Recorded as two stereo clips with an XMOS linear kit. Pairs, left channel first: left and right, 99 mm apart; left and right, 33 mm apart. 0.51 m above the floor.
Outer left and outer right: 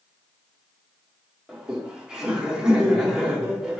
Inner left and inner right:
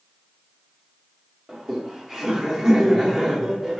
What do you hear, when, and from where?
1.5 s laughter: 10° right (ahead or behind), 0.8 m